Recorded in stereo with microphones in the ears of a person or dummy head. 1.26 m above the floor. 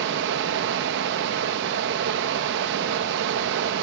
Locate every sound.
0.0 s running water: 70° right (ahead or behind), 1.4 m